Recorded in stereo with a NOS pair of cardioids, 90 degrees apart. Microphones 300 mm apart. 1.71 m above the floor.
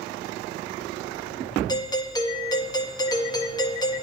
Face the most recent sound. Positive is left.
turn(degrees=15)